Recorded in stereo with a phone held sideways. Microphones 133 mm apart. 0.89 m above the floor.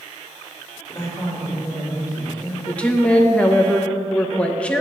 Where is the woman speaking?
10° left (ahead or behind), 0.7 m.